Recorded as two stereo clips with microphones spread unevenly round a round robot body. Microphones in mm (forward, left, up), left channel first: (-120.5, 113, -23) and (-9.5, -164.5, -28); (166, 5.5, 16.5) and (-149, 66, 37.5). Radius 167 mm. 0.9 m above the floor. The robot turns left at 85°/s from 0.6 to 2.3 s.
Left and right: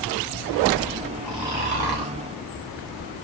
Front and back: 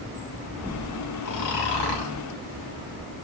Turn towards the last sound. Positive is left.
turn(degrees=-60)